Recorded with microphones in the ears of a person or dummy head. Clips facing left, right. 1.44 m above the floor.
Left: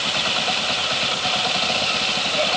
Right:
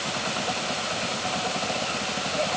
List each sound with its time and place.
Only background noise.